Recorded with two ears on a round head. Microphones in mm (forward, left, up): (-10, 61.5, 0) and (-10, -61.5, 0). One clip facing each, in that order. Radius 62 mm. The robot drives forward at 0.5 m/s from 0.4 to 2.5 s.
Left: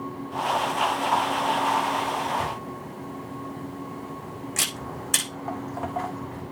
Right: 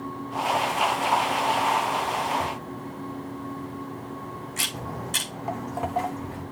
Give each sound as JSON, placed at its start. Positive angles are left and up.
{"t": 2.4, "sound": "a camera shutter", "side_deg": 85, "distance_m": 7.5}
{"t": 4.7, "sound": "footsteps", "side_deg": -15, "distance_m": 1.9}